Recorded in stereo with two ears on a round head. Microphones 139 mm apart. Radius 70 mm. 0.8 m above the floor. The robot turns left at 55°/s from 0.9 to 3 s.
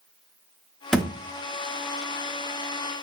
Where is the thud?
5° left (ahead or behind), 0.6 m; by 1.2 s 10° right (ahead or behind), 0.6 m.